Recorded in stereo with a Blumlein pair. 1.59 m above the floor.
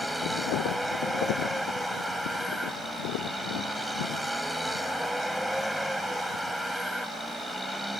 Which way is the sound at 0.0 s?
Straight ahead.